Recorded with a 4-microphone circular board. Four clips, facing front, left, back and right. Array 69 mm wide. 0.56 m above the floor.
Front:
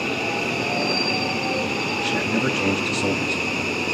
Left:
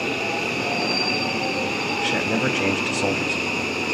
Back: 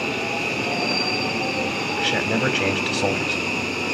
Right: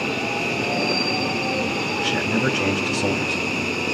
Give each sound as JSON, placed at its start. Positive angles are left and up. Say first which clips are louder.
{"t": 2.0, "sound": "a man speaking", "louder": "even, back 2 dB", "azimuth_deg": 155, "distance_m": 4.0}